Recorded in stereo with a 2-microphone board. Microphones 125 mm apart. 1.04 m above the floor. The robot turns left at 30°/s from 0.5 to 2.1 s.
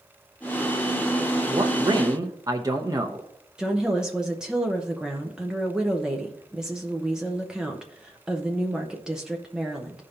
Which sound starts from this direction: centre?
A woman speaking, at 3.6 s.